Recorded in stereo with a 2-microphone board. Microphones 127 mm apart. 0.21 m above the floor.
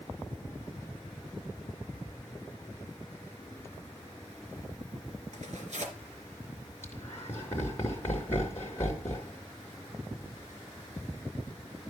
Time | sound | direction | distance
5.3 | tearing paper | 65° right (ahead or behind) | 3.5 m
6.8 | laughter | 20° left (ahead or behind) | 2 m